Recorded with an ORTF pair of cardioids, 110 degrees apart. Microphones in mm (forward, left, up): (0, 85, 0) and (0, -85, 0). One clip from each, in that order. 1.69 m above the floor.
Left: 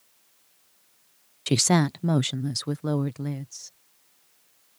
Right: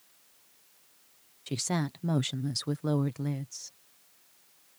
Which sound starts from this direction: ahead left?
A woman speaking, at 1.5 s.